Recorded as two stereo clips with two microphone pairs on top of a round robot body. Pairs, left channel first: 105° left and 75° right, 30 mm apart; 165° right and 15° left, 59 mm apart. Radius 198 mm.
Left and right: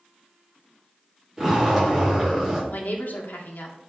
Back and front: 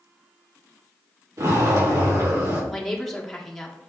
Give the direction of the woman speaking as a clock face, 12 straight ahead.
8 o'clock.